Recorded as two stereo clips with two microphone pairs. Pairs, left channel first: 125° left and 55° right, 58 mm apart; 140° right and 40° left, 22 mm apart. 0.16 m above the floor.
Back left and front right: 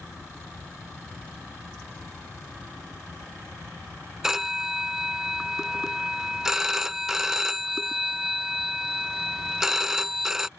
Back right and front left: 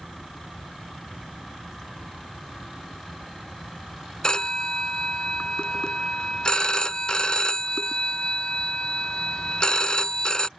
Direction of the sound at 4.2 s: 130° right.